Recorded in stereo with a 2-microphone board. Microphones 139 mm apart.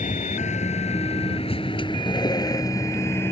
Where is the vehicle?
65° left (ahead or behind); by 3.3 s 15° left (ahead or behind).